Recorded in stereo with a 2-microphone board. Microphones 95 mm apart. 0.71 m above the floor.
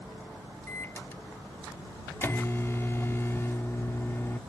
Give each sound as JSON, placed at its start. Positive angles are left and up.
{"t": 0.7, "sound": "a microwave", "side_deg": 30}